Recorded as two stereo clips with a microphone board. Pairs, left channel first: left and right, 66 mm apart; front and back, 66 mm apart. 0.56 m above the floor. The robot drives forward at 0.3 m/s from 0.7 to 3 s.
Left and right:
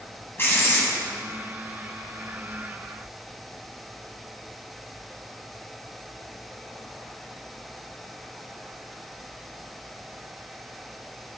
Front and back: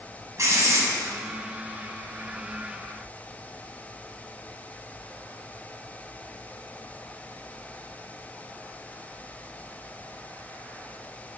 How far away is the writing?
About 1.9 m.